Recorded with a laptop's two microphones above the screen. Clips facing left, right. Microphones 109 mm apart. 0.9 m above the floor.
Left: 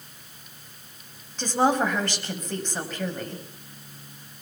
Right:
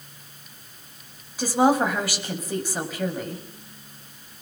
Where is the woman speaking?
10° right (ahead or behind), 5.5 m.